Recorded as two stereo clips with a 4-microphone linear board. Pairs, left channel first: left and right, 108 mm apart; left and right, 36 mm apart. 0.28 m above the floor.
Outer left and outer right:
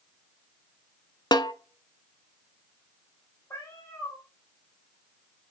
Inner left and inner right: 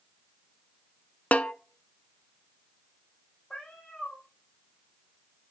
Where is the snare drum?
45° left (ahead or behind), 0.7 m.